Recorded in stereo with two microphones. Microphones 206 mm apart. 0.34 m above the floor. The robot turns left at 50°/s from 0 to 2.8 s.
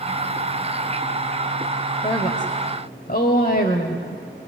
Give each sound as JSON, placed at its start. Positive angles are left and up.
{"t": 2.0, "sound": "a woman speaking", "azimuth_deg": 145, "distance_m": 1.9}